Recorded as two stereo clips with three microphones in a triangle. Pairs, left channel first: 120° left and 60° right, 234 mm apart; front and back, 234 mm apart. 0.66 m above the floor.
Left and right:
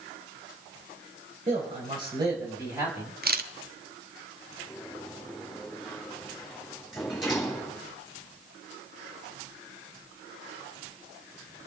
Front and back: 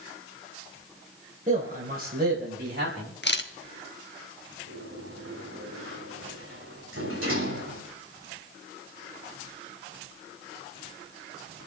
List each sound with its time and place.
1.5 s a man speaking: 120° right, 3 m; by 3.1 s 140° right, 4 m
3.2 s a camera shutter: 25° right, 1.1 m
4.7 s a sliding door: 150° right, 5.5 m